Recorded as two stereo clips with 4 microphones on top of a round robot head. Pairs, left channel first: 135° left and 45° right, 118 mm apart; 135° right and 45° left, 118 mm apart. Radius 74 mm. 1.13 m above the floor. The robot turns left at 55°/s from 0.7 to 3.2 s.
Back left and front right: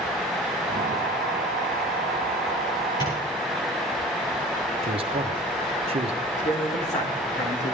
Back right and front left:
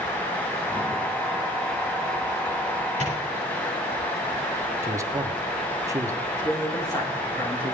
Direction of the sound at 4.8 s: 15° right.